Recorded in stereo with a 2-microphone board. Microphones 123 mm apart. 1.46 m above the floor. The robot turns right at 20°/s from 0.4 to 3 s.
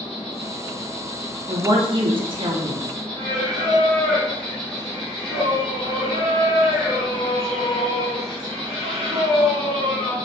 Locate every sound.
0.0 s an insect: 120° left, 0.9 m; by 10.3 s 170° left, 0.9 m
1.5 s a woman speaking: 35° right (ahead or behind), 0.5 m; by 2.9 s 50° right (ahead or behind), 0.5 m
3.2 s singing: 25° left (ahead or behind), 1.3 m